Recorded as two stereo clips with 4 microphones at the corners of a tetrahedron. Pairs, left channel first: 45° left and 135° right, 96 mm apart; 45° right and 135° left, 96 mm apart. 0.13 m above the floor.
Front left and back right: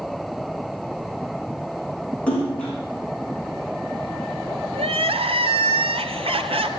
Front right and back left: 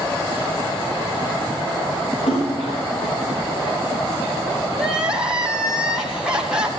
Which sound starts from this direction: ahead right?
A splash, at 2.3 s.